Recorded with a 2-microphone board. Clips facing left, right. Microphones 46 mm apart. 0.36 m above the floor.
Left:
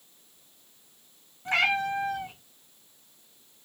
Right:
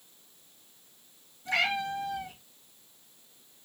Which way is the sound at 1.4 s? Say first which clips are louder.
Left 4 dB; 45° left (ahead or behind).